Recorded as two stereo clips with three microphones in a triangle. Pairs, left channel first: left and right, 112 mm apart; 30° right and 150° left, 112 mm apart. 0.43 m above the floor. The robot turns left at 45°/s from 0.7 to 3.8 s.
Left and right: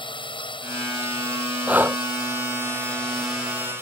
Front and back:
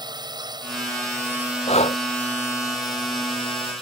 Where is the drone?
115° left; by 3.8 s 25° right.